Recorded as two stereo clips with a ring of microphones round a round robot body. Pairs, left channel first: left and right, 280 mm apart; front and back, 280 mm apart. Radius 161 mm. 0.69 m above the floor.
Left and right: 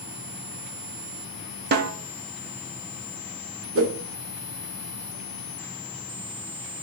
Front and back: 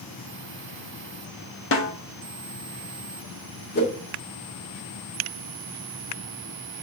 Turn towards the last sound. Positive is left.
turn(degrees=-55)